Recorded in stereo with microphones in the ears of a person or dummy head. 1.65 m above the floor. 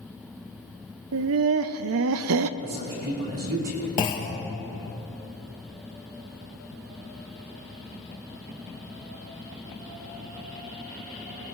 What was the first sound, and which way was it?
Laughter, 70° right (ahead or behind).